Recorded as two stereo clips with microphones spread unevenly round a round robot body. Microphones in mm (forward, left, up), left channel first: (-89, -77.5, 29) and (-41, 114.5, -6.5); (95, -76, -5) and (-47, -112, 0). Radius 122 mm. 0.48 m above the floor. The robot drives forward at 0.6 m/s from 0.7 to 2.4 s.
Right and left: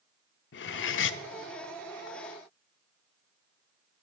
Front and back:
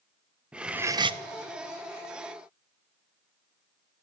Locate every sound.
0.5 s cutlery clinking: 80° right, 0.5 m; by 1.2 s 120° right, 0.6 m